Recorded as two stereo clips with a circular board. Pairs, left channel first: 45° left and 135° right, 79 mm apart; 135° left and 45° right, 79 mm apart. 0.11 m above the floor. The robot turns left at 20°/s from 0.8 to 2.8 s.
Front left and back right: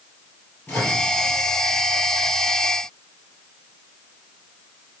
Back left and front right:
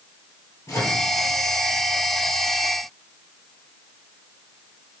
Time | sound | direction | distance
0.7 | a microwave | 110° left | 2 m